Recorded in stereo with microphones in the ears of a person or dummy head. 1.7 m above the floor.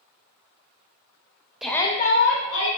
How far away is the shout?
About 0.5 m.